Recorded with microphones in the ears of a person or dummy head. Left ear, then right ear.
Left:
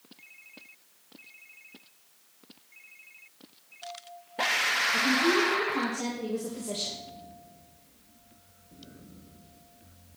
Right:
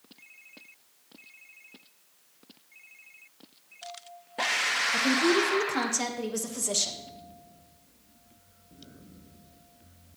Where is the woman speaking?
65° right (ahead or behind), 1.4 m.